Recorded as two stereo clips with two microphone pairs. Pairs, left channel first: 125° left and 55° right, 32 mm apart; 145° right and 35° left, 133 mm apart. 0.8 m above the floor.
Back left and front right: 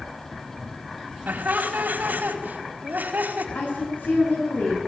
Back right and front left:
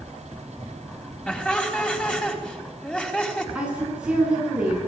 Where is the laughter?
65° right, 4.5 m.